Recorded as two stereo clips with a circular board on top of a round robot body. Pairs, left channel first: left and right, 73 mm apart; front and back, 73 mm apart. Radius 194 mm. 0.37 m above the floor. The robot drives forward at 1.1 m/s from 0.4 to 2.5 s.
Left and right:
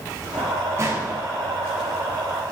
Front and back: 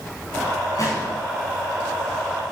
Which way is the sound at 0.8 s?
40° right.